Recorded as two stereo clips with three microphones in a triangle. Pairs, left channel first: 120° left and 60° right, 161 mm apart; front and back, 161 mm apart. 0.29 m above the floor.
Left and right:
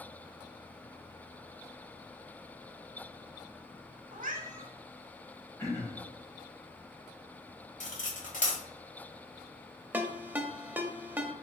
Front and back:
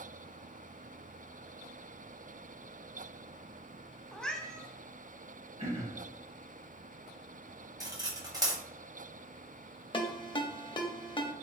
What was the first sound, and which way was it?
A cat meowing, 85° right.